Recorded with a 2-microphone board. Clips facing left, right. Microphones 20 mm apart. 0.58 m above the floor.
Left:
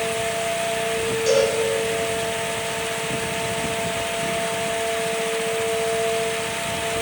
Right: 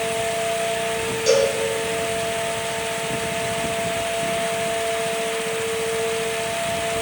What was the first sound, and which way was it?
A cowbell, 15° right (ahead or behind).